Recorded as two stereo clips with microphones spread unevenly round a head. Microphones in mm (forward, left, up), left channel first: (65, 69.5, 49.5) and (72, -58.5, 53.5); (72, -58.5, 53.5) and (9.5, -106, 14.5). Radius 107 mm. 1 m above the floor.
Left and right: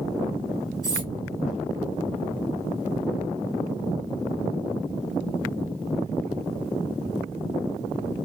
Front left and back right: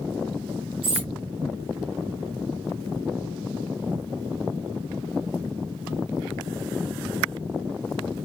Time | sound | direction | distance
0.8 | cutlery clinking | 155° right | 1.4 m